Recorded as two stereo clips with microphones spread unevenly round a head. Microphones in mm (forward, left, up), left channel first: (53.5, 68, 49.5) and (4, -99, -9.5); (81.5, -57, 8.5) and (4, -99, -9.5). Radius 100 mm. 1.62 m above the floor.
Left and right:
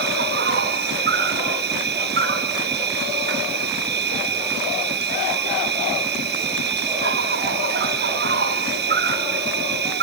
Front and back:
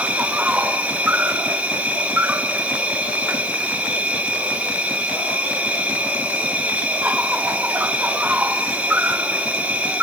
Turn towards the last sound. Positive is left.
turn(degrees=-70)